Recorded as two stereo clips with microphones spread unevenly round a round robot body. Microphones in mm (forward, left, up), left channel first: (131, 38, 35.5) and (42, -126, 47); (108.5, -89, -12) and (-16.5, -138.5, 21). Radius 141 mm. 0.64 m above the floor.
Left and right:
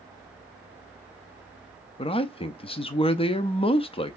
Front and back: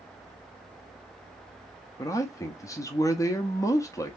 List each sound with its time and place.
2.0 s a man speaking: 30° left, 0.6 m